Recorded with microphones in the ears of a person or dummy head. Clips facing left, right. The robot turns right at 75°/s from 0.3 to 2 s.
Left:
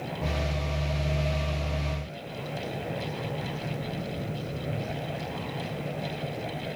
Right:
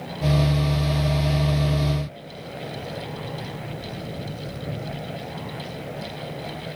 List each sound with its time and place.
Only background noise.